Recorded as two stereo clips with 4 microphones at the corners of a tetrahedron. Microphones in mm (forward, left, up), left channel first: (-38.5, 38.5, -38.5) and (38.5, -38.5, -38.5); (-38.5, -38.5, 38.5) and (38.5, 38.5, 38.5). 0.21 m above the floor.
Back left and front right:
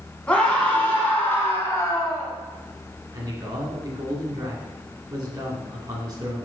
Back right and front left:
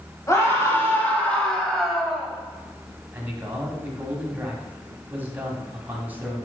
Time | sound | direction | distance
0.3 | a scream | 155° right | 1.6 m
3.1 | a man speaking | 20° right | 2 m